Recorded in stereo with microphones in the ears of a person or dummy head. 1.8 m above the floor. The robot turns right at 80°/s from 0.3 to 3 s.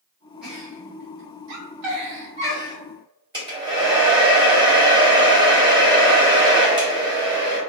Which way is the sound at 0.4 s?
5° left (ahead or behind).